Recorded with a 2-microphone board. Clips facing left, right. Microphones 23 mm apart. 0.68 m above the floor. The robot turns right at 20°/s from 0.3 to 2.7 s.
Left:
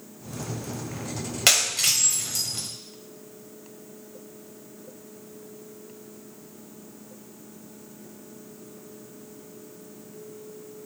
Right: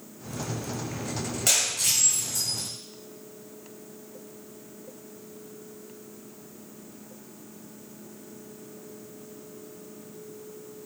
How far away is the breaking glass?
About 1.4 m.